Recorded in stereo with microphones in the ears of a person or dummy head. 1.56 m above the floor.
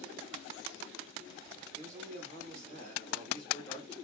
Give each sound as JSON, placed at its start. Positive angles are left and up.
{"t": 1.8, "sound": "a man speaking", "side_deg": 10, "distance_m": 3.0}